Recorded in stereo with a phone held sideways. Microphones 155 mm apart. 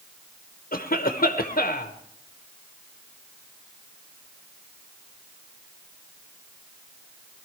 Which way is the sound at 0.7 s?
70° left (ahead or behind).